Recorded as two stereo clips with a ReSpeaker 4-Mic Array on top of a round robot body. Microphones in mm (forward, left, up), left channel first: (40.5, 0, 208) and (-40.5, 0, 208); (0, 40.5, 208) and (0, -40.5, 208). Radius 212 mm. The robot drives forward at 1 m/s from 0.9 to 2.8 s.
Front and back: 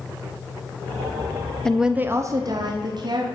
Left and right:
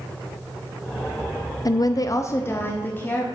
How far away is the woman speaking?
About 0.8 m.